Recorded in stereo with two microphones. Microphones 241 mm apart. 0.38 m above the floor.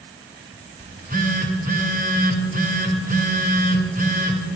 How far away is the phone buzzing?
About 1.2 m.